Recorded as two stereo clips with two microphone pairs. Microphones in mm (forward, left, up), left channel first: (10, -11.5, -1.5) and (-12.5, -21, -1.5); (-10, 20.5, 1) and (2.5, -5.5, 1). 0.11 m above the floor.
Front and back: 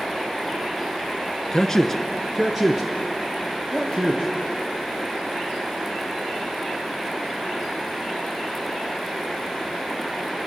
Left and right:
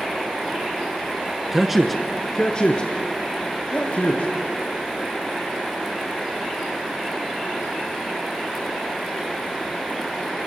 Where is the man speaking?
Straight ahead, 1.3 m; by 4.3 s 150° left, 3 m.